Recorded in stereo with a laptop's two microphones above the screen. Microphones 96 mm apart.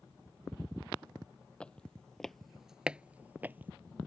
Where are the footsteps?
10° left (ahead or behind); by 3.7 s 20° right (ahead or behind).